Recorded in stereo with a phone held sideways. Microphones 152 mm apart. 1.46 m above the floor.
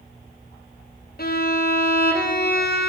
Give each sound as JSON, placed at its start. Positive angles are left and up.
{"t": 1.2, "sound": "a violin", "side_deg": 70, "distance_m": 0.6}